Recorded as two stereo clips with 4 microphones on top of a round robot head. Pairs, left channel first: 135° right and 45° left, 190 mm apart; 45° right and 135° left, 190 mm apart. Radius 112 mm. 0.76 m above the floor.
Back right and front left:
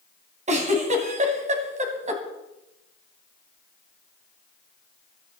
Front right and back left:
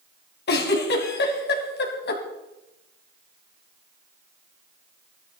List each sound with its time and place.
0.5 s a giggle: 10° right, 2 m